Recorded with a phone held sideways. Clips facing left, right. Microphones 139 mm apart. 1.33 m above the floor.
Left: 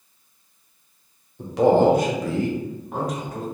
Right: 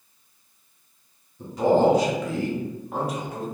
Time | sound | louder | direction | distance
1.4 | a man speaking | left 3 dB | 85° left | 0.8 m